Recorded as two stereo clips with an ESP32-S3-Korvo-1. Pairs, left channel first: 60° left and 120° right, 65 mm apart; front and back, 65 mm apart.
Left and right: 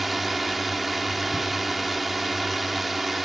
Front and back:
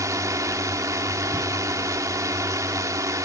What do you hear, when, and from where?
0.0 s a drone: 150° left